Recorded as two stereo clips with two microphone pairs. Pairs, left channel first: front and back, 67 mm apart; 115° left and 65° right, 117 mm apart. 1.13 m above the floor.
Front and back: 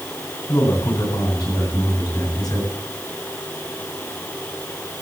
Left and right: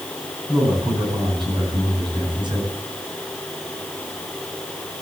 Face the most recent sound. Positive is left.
turn(degrees=-15)